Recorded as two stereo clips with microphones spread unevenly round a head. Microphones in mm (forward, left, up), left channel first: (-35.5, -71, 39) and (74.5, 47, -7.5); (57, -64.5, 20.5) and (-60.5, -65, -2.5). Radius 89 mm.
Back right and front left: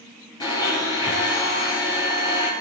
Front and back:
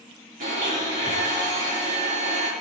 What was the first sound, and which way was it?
A blender, 160° left.